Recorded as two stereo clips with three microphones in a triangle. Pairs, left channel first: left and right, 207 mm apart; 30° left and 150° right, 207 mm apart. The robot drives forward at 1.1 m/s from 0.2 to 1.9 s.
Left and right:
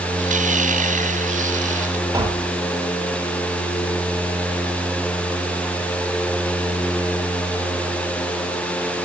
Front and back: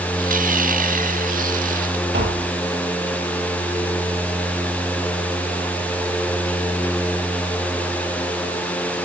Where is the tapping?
160° right, 1.8 m.